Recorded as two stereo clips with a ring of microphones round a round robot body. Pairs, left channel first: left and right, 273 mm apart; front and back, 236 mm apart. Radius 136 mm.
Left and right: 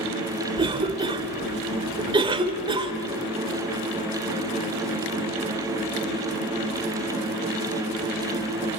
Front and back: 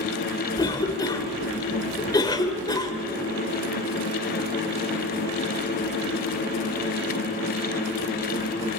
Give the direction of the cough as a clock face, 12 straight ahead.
2 o'clock.